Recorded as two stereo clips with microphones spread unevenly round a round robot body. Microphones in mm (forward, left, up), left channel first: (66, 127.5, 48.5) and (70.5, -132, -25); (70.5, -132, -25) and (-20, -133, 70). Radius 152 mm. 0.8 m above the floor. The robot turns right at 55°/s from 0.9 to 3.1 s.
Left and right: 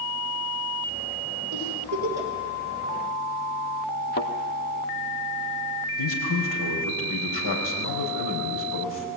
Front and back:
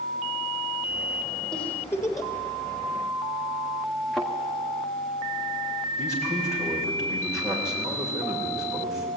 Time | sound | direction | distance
1.5 | a giggle | 70° right | 3.5 m
4.1 | a thud | 130° left | 1.5 m
6.0 | a man speaking | 100° left | 5.5 m